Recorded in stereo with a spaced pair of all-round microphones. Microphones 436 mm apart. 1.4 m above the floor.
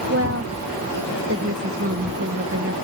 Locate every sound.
0.1 s a woman speaking: 30° right (ahead or behind)